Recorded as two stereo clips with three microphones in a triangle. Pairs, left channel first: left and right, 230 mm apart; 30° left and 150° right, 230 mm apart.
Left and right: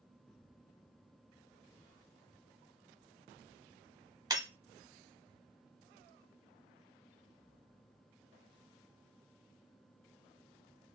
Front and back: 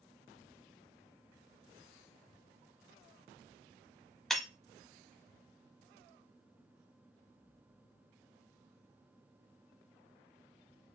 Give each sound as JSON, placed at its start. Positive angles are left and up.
{"t": 4.3, "sound": "breaking glass", "azimuth_deg": -55, "distance_m": 0.7}